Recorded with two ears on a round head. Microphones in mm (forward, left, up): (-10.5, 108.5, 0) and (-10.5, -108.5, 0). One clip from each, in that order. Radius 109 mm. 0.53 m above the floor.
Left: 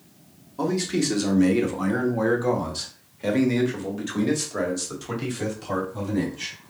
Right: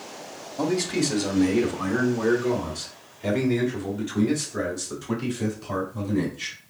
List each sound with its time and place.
0.6 s a man speaking: centre (ahead or behind), 1.0 m; by 6.5 s 75° left (ahead or behind), 3 m